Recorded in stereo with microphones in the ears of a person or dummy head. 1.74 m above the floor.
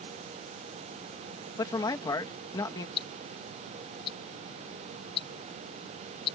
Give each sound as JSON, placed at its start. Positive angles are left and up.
{"t": 1.6, "sound": "a man speaking", "side_deg": 25}
{"t": 3.0, "sound": "ticking", "side_deg": 30}